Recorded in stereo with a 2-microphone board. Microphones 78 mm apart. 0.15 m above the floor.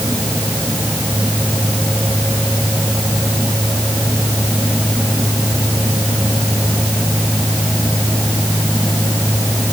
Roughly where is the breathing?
I don't hear breathing.